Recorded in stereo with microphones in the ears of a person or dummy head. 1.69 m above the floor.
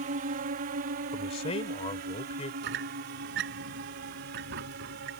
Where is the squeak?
60° right (ahead or behind).